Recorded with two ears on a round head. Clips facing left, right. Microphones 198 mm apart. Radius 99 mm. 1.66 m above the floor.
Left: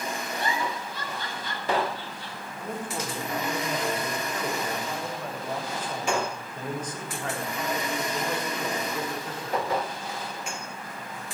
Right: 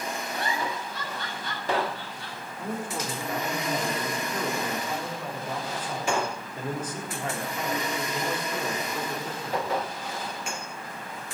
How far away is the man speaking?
About 4 m.